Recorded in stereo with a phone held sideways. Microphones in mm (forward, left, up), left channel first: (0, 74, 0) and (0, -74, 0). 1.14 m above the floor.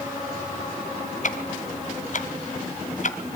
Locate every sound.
1.2 s ticking: 55° left (ahead or behind), 2.5 m